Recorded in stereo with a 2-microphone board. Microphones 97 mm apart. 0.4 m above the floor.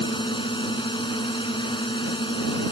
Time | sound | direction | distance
0.0 | a drone | 55° left (ahead or behind) | ?